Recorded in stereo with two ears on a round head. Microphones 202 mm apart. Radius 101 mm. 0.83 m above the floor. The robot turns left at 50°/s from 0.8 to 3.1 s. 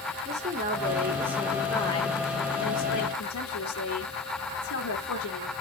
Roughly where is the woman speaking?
Behind right.